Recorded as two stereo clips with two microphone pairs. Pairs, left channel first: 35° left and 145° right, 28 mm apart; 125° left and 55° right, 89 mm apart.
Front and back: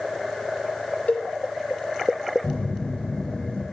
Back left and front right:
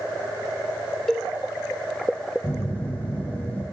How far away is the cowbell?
About 2 m.